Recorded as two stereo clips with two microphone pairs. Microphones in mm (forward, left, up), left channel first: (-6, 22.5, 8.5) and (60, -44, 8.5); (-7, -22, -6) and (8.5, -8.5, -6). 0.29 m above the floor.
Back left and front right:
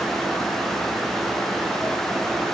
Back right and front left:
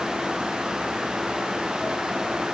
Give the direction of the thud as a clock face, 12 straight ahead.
I don't hear a thud.